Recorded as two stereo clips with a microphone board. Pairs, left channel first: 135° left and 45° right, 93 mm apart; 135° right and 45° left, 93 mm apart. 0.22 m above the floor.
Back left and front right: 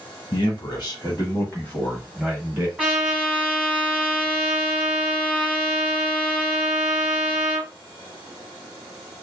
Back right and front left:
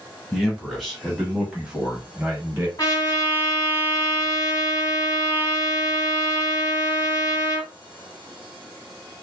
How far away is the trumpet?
About 1.8 m.